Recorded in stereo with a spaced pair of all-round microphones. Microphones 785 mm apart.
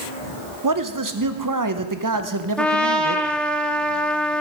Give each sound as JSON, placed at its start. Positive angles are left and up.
{"t": 0.6, "sound": "a man speaking", "side_deg": -25, "distance_m": 0.7}
{"t": 2.6, "sound": "a trumpet", "side_deg": 0, "distance_m": 0.8}